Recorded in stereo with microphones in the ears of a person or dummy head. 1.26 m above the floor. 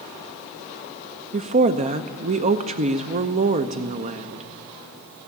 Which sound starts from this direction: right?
A woman speaking, at 1.3 s.